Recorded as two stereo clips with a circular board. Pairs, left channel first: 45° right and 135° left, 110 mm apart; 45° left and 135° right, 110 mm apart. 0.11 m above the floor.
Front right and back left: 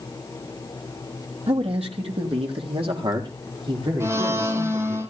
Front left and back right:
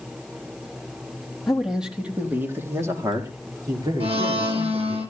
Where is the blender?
160° right, 2 m.